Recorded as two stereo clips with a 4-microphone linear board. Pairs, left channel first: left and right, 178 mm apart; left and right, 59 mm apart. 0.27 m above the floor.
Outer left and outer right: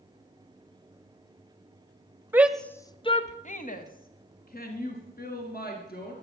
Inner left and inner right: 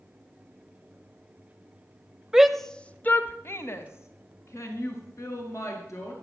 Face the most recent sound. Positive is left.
turn(degrees=60)  # may be behind; listen again after turning